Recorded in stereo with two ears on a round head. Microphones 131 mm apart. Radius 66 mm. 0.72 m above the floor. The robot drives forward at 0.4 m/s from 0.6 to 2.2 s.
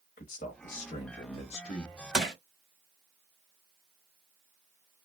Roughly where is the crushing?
Centre.